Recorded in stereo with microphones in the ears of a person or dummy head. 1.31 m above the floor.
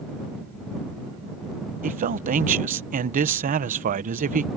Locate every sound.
1.8 s a man speaking: 40° right (ahead or behind)